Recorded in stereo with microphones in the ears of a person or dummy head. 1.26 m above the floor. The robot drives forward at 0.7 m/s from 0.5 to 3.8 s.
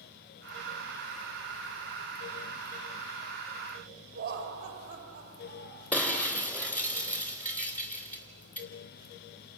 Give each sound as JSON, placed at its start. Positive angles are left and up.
{"t": 4.2, "sound": "laughter", "side_deg": -55, "distance_m": 2.0}
{"t": 5.9, "sound": "breaking glass", "side_deg": 15, "distance_m": 3.5}